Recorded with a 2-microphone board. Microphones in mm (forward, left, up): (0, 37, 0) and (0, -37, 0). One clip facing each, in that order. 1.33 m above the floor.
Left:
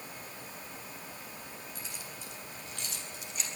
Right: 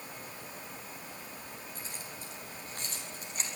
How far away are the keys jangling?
About 7 m.